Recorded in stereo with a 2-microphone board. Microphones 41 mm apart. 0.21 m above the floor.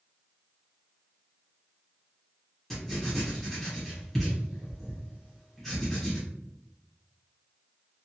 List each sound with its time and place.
2.7 s writing: 5° left (ahead or behind), 1.3 m